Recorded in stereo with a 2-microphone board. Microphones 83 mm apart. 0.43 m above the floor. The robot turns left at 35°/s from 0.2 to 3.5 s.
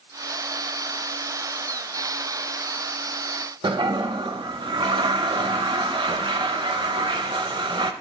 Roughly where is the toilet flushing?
Right.